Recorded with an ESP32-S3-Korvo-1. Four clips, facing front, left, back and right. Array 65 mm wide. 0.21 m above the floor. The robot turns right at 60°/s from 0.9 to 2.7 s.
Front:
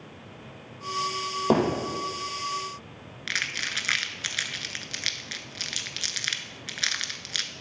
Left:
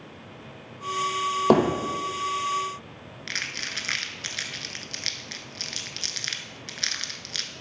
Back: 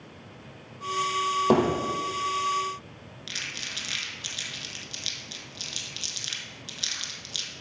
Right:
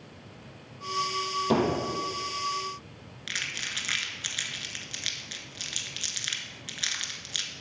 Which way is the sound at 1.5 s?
85° left.